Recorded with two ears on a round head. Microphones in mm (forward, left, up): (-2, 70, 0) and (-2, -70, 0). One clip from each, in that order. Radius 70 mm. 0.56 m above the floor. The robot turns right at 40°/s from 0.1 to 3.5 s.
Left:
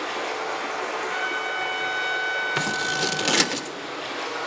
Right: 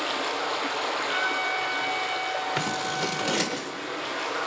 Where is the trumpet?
15° right, 1.3 m; by 3.6 s 80° left, 1.3 m.